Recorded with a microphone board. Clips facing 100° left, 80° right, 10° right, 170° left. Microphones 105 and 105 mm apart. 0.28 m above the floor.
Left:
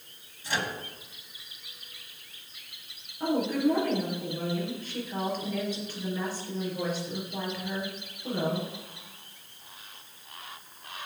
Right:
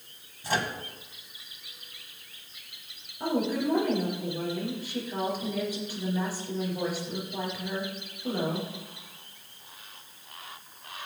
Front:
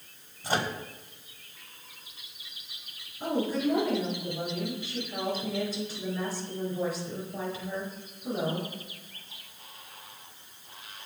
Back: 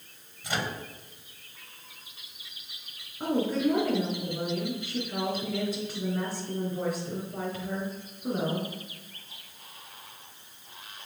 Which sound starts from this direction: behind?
A woman speaking, at 3.2 s.